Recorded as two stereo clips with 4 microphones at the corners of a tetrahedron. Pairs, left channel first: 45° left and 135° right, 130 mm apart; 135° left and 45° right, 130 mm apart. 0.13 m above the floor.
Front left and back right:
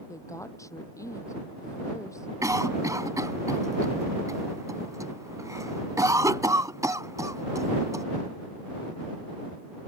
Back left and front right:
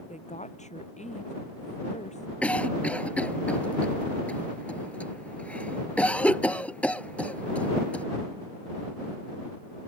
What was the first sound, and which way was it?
A woman speaking, 110° left.